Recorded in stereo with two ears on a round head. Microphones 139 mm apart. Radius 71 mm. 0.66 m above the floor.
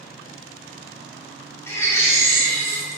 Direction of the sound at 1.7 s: 15° left (ahead or behind).